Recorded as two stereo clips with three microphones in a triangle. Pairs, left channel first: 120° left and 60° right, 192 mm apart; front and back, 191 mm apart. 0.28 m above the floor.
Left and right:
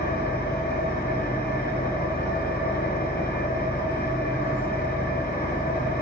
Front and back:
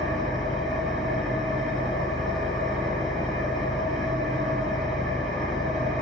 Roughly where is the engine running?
Left.